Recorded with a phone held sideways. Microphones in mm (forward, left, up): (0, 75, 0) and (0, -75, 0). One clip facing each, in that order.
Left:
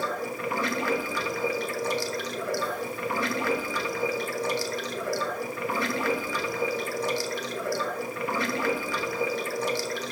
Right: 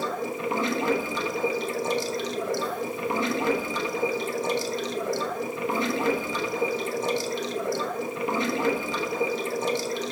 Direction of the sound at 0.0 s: 20° right (ahead or behind).